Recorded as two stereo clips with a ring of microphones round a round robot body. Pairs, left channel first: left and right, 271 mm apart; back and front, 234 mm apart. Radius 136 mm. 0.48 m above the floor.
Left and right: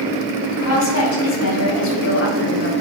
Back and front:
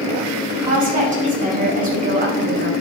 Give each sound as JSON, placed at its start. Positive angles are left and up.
{"t": 0.5, "sound": "a woman speaking", "azimuth_deg": 55, "distance_m": 4.0}